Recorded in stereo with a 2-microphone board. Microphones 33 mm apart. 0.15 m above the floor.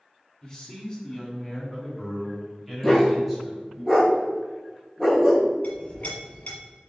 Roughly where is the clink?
Left.